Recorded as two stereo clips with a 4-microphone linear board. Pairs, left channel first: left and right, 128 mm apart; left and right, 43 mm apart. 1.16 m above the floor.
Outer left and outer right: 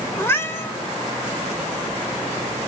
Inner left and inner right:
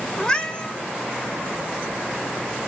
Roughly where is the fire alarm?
No fire alarm in this recording.